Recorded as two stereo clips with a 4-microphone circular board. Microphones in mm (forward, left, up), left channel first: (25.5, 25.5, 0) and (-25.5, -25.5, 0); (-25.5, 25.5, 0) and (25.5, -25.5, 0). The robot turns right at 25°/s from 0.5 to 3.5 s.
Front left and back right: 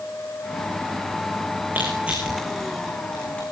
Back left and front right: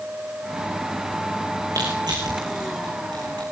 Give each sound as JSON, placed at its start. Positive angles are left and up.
{"t": 1.8, "sound": "crushing", "azimuth_deg": -70, "distance_m": 6.0}